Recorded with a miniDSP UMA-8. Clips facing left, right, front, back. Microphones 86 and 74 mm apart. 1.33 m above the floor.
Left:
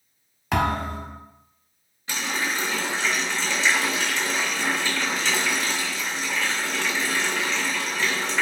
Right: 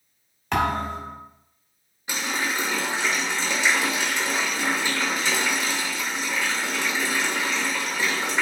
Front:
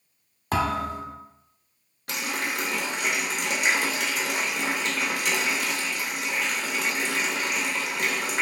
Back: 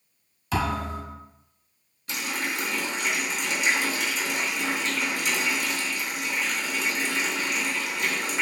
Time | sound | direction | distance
0.5 | a thud | 5° left | 1.1 m
2.1 | a running tap | 15° right | 0.8 m